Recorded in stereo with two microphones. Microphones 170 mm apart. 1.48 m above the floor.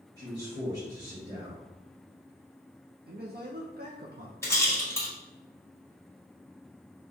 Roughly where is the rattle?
Centre.